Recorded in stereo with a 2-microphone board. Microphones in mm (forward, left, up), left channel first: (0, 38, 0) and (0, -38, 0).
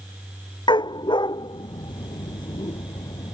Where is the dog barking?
85° left; by 3.3 s 70° left (ahead or behind).